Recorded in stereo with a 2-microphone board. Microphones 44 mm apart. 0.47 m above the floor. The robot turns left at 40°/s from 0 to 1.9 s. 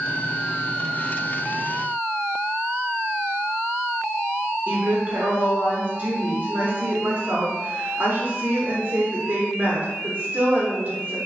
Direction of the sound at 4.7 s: 40° right (ahead or behind).